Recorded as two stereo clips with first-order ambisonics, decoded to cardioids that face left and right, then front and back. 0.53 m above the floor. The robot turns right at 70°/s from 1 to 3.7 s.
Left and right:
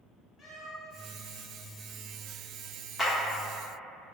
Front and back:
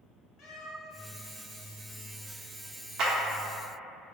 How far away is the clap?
About 0.7 m.